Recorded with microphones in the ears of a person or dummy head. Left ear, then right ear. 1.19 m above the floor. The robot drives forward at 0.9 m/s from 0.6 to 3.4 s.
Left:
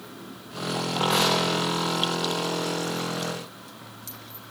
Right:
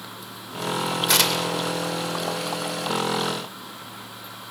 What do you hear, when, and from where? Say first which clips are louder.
1.1 s tearing paper: right 1 dB; 80° right, 2.5 m